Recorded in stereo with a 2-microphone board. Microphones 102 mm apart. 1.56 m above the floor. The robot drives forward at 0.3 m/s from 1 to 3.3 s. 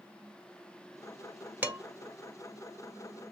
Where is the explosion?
I don't hear an explosion.